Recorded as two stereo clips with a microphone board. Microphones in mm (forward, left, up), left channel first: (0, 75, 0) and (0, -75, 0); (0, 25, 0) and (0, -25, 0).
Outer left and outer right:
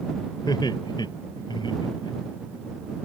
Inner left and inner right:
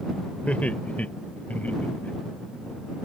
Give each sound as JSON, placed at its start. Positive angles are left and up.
{"t": 0.5, "sound": "laughter", "side_deg": 30}